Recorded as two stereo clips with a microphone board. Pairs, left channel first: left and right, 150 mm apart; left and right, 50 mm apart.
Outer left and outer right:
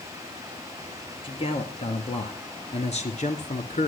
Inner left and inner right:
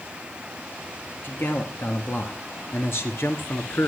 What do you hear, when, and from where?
1.2 s a man speaking: 35° left (ahead or behind), 2.5 m; by 3.9 s 55° left (ahead or behind), 1.9 m